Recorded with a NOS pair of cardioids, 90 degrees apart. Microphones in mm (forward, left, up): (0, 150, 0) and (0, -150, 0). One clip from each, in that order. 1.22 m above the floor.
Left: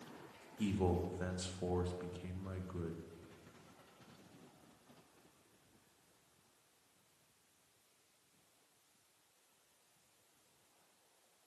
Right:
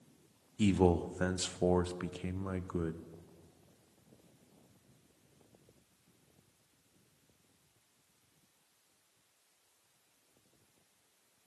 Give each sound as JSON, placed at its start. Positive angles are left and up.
{"t": 0.6, "sound": "a man speaking", "azimuth_deg": -40, "distance_m": 0.6}